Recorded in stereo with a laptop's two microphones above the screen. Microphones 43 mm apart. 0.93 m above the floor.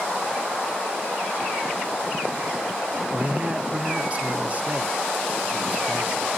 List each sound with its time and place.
3.1 s a man speaking: 30° right (ahead or behind), 0.5 m